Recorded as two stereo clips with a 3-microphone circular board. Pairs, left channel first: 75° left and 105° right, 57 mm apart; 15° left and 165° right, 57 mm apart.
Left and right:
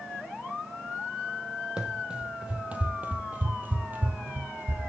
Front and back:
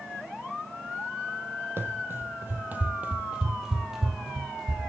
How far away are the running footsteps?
About 1.6 m.